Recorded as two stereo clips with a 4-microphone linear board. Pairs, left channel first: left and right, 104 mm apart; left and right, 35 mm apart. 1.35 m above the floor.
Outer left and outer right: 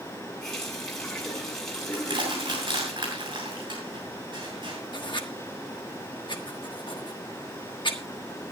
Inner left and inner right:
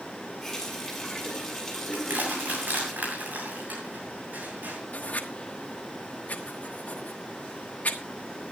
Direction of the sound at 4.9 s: 50° left (ahead or behind).